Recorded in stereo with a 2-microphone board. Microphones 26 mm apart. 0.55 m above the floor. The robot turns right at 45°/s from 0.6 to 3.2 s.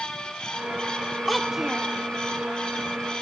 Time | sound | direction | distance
1.3 | a child speaking | 5° left (ahead or behind) | 0.6 m